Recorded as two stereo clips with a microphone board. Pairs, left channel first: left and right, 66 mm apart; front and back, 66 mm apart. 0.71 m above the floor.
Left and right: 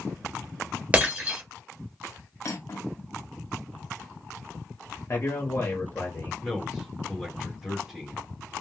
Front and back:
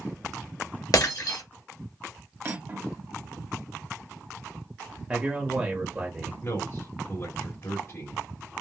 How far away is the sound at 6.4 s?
About 1.4 m.